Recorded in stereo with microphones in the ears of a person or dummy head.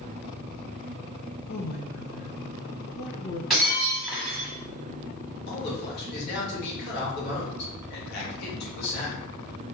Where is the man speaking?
60° left (ahead or behind), 2.5 m.